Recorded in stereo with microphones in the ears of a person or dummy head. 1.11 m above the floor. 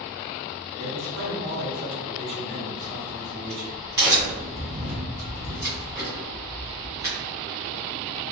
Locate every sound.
0.8 s a man speaking: 55° right (ahead or behind), 0.8 m
2.8 s a crack: 20° right (ahead or behind), 0.8 m